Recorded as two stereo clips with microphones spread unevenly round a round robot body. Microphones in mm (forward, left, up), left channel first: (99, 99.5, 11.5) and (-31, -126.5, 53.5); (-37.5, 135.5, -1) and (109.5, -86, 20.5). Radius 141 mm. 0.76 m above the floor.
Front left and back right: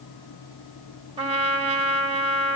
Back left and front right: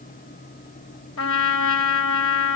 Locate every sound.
1.2 s a trumpet: 170° left, 3.5 m